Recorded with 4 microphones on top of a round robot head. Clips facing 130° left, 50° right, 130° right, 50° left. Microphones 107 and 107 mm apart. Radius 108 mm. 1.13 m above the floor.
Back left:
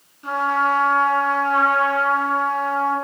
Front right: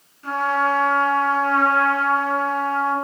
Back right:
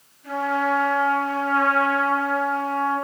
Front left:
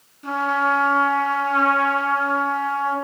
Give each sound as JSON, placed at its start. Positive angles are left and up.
{"t": 0.2, "sound": "a trumpet", "azimuth_deg": 60, "distance_m": 6.0}